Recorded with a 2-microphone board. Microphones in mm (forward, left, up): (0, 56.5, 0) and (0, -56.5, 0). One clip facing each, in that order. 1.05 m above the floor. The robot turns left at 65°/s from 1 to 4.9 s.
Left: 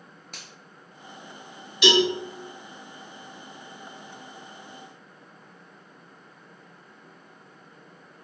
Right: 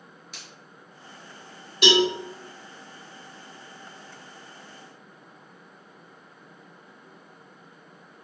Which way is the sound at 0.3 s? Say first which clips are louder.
Left 2 dB; 50° left (ahead or behind).